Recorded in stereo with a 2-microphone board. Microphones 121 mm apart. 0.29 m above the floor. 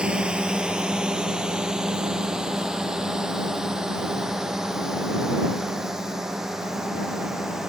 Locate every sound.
0.0 s a drone: 10° right (ahead or behind); by 7.7 s 5° right (ahead or behind)